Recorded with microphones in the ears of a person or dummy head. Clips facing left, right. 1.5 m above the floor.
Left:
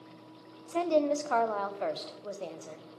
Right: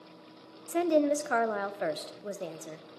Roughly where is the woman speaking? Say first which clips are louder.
Right 2 dB; right.